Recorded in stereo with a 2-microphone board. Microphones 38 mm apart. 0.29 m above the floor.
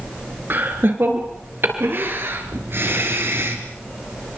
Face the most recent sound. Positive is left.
turn(degrees=-70)  # may be behind; listen again after turning